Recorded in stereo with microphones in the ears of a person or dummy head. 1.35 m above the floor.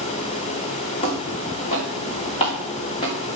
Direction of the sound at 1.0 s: 35° left (ahead or behind).